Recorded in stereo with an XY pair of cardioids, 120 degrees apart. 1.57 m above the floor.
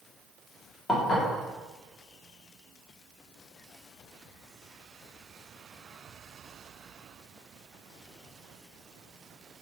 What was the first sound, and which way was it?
Dishes clattering, 40° left.